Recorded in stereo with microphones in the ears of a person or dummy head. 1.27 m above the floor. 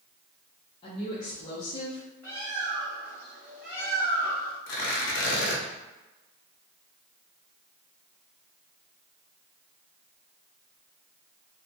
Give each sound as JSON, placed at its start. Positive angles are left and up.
{"t": 0.8, "sound": "a woman speaking", "side_deg": 30, "distance_m": 0.7}
{"t": 2.2, "sound": "a bird", "side_deg": 5, "distance_m": 1.0}
{"t": 4.7, "sound": "tearing paper", "side_deg": 60, "distance_m": 0.7}